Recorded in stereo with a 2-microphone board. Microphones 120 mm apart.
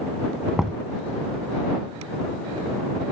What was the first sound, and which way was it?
Knocking, 5° right (ahead or behind).